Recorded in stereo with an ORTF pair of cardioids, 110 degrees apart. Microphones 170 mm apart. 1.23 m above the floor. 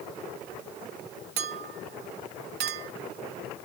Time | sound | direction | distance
1.4 | a clink | 70° right | 1.3 m